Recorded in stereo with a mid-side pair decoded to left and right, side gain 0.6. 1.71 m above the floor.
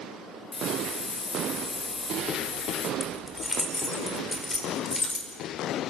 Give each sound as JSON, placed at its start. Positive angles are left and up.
{"t": 0.5, "sound": "a hiss", "azimuth_deg": 30, "distance_m": 3.5}
{"t": 3.0, "sound": "keys jangling", "azimuth_deg": 15, "distance_m": 4.0}